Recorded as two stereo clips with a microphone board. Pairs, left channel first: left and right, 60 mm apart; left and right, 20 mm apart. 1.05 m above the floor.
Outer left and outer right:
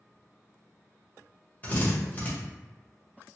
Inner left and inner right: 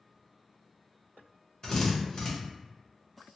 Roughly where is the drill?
Left.